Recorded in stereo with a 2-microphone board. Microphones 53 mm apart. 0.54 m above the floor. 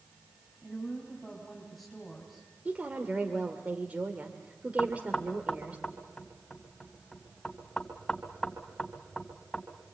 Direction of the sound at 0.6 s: Centre (ahead or behind).